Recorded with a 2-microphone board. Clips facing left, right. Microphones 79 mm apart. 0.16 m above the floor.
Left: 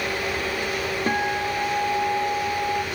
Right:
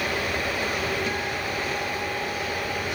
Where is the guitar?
45° left (ahead or behind).